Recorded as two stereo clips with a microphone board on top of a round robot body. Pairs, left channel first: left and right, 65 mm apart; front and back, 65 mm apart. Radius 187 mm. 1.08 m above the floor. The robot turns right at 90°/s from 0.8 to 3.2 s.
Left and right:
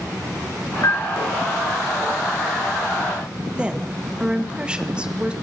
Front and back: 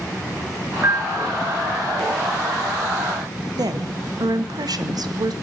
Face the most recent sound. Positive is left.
turn(degrees=-165)